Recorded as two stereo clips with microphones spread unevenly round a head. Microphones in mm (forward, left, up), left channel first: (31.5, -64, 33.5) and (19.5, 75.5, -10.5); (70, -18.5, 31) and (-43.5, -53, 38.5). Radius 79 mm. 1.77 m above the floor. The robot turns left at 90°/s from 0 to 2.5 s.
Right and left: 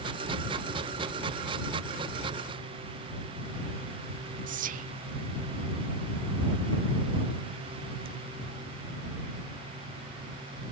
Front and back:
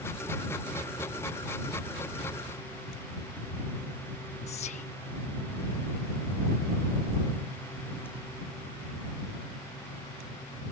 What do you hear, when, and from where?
4.5 s whispering: 65° left